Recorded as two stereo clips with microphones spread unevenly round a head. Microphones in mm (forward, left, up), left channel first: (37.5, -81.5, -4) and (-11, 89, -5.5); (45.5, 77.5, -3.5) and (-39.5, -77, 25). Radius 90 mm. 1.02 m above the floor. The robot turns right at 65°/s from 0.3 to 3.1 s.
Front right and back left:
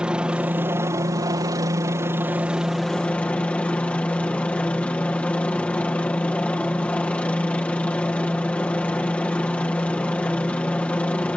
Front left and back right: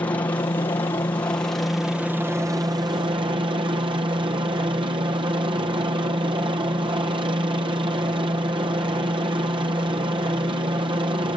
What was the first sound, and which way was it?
A helicopter, 35° left.